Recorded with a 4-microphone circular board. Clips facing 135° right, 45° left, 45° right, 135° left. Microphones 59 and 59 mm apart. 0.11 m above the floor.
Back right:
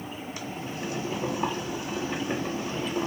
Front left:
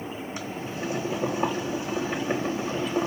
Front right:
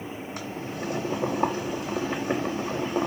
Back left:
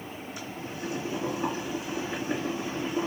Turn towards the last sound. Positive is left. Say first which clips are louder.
# front left 1 dB, front right 3 dB
turn(degrees=-20)